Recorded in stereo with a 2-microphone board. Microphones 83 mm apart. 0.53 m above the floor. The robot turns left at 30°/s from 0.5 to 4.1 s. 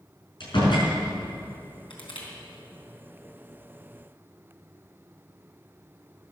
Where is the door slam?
65° left (ahead or behind), 5.5 m; by 0.9 s 55° left (ahead or behind), 5.5 m.